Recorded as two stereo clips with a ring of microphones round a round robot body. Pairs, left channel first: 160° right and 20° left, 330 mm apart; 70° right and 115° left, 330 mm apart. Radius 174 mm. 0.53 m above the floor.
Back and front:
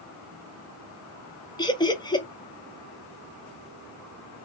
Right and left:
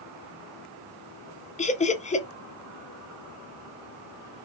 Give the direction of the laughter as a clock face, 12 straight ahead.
3 o'clock.